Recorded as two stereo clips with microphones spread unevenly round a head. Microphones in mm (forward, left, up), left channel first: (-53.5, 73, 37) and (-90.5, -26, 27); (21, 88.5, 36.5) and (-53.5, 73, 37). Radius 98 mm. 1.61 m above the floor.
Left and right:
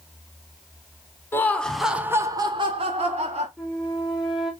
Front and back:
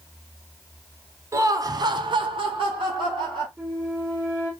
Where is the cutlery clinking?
I don't hear cutlery clinking.